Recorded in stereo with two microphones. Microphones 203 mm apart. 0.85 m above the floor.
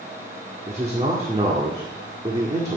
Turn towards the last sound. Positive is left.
turn(degrees=-30)  # may be behind; listen again after turning